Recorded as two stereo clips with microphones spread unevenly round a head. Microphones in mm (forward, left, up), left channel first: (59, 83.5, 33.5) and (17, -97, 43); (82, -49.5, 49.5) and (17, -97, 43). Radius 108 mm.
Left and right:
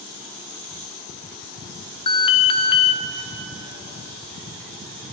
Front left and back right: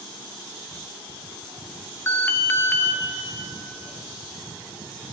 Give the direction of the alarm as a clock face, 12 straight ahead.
9 o'clock.